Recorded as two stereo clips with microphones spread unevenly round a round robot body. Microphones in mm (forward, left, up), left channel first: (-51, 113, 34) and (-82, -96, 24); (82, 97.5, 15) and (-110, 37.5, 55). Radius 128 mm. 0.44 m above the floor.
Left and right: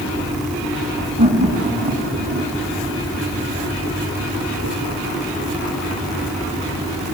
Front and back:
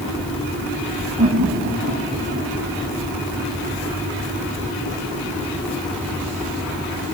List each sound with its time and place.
1.2 s laughter: 155° right, 4.5 m; by 2.5 s 150° right, 3 m